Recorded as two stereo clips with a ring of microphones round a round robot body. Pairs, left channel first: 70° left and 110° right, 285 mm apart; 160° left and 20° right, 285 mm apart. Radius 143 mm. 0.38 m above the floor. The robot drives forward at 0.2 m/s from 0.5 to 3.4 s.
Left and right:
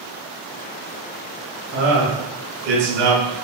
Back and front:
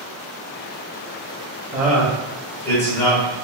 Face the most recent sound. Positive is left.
turn(degrees=-135)